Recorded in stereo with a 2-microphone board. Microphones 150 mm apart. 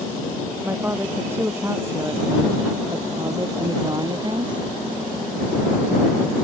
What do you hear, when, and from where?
0.6 s a woman speaking: 10° right (ahead or behind); by 4.6 s 30° right (ahead or behind)